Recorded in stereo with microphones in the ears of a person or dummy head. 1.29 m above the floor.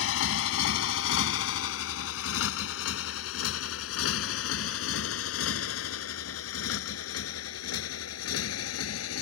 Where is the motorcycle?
75° left (ahead or behind); by 9.2 s 85° left.